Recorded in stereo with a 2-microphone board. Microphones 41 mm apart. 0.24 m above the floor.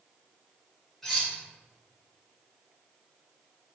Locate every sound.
1.0 s cutlery clinking: 10° left (ahead or behind), 1.3 m